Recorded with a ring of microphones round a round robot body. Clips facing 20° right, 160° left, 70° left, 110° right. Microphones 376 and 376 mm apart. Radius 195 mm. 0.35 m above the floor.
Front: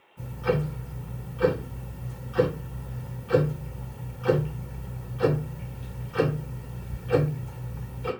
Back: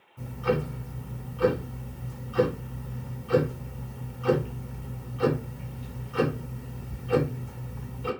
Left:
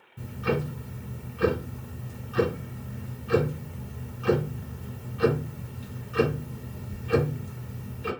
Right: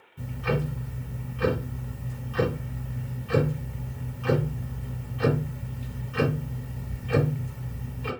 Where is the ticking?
70° left, 1.9 m.